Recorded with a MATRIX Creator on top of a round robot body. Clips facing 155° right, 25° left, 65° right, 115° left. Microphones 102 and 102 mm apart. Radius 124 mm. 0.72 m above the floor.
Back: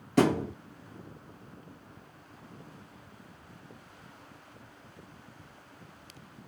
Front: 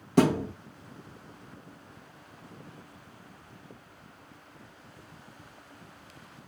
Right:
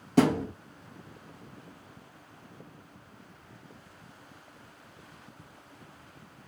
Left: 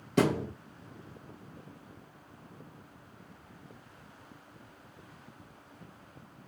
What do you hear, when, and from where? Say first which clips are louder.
0.2 s a thud: front 1 dB, right 4 dB; 25° right, 0.7 m